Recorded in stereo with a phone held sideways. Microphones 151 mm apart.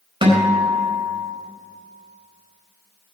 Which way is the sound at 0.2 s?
40° right (ahead or behind).